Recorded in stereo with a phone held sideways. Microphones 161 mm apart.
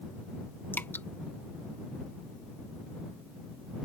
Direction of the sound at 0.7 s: 15° left (ahead or behind).